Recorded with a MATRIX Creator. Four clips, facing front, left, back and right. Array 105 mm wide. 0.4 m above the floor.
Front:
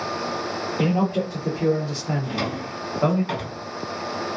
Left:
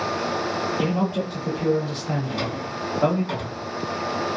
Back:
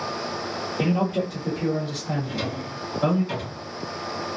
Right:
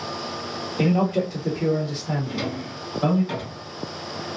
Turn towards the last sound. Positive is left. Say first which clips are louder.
# left 1 dB, front 2 dB
turn(degrees=10)